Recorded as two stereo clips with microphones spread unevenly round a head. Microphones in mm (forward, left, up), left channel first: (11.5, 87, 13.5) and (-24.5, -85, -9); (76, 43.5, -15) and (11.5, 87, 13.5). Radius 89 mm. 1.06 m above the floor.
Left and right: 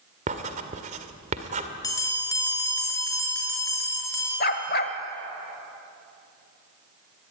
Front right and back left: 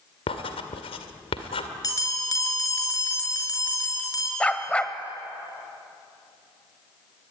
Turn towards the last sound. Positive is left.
turn(degrees=50)